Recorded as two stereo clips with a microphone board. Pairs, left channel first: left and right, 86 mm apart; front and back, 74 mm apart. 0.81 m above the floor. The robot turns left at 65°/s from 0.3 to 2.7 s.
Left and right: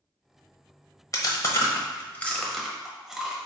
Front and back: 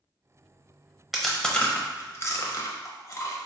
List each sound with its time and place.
1.1 s chewing: 95° left, 0.7 m; by 3.4 s 10° right, 0.7 m